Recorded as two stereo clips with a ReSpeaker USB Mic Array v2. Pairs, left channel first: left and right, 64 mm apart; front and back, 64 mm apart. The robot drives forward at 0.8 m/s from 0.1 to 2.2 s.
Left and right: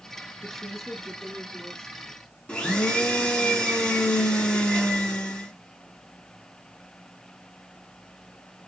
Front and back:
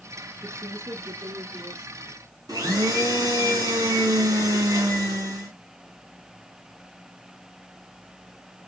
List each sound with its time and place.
0.4 s a woman speaking: 175° left, 0.9 m; by 2.2 s straight behind, 2 m
2.5 s a blender: 165° left, 2.5 m